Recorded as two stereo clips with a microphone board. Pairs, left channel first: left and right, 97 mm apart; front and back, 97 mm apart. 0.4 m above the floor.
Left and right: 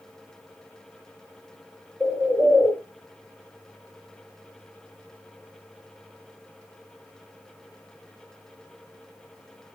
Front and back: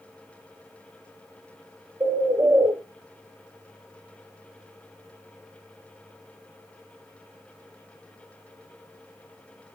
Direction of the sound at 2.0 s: 170° left.